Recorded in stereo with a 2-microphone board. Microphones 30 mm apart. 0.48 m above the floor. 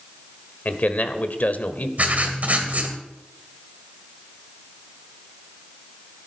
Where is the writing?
55° right (ahead or behind), 2.5 m.